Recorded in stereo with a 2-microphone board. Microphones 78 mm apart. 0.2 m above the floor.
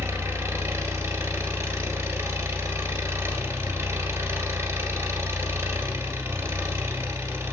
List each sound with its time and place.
0.0 s an engine running: 35° right (ahead or behind), 1.7 m